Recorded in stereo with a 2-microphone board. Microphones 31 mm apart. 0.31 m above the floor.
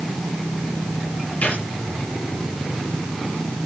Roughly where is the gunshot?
Left.